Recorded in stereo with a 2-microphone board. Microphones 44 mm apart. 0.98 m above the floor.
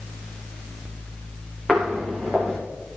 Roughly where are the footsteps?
Centre.